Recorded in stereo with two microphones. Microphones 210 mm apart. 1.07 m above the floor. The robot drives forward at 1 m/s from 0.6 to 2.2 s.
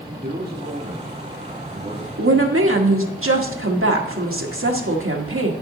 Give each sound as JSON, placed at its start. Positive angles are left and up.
{"t": 0.2, "sound": "a man speaking", "side_deg": -50, "distance_m": 2.0}
{"t": 2.2, "sound": "a woman speaking", "side_deg": -85, "distance_m": 1.4}